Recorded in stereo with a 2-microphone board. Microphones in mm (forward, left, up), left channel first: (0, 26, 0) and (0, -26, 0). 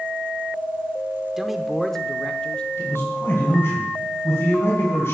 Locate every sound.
1.4 s a man speaking: 5° right (ahead or behind), 0.8 m; by 2.7 s 20° left (ahead or behind), 0.9 m
2.8 s a man speaking: 50° left (ahead or behind), 4 m